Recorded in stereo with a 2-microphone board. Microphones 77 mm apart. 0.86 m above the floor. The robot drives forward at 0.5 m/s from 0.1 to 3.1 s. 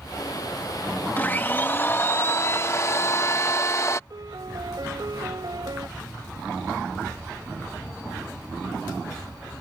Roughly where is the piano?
Right.